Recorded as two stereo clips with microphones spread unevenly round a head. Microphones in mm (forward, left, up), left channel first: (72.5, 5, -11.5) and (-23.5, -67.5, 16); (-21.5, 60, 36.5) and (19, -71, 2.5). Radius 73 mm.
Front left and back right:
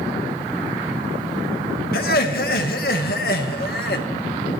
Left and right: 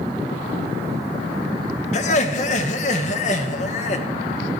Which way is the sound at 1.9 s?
70° left.